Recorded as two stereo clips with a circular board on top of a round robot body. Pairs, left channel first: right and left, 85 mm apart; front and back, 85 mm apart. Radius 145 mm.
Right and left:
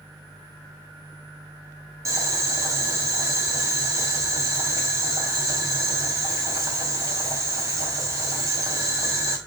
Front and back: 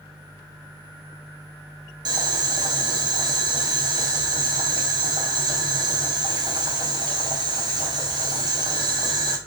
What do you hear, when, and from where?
2.0 s boiling: 140° left, 1.2 m